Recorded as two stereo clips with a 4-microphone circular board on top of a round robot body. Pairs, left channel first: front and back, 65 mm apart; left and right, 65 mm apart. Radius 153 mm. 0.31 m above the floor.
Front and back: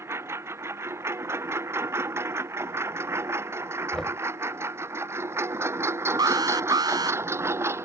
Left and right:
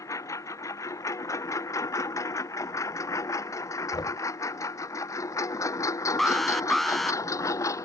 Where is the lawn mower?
130° left.